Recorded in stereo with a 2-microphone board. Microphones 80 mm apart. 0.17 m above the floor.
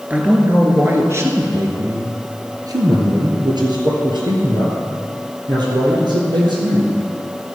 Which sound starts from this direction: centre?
A man speaking, at 0.1 s.